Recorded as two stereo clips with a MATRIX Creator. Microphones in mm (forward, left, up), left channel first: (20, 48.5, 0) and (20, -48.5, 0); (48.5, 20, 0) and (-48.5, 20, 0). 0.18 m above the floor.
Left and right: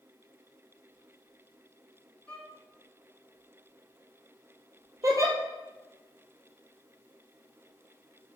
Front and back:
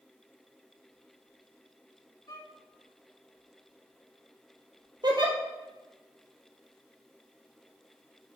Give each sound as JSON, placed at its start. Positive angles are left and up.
{"t": 2.3, "sound": "a violin", "azimuth_deg": 15, "distance_m": 2.0}
{"t": 5.0, "sound": "a giggle", "azimuth_deg": -140, "distance_m": 1.4}